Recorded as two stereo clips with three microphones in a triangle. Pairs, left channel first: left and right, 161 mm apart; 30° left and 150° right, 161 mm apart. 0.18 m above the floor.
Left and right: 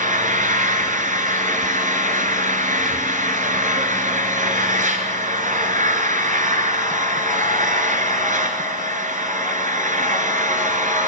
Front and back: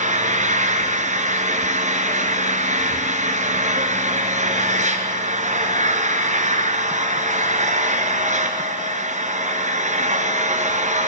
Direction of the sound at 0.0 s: 115° right.